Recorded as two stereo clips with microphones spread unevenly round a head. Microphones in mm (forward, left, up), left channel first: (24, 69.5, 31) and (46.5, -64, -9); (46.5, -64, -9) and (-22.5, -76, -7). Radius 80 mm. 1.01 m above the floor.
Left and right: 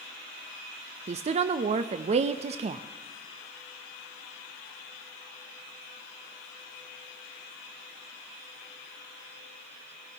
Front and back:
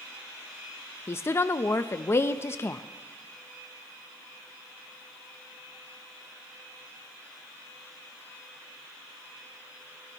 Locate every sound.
1.1 s a woman speaking: 45° right, 0.6 m